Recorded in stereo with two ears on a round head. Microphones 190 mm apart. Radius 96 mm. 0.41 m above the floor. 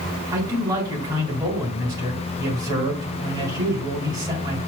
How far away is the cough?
No cough in this recording.